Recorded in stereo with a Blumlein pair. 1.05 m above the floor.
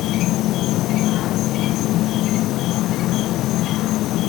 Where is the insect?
35° left.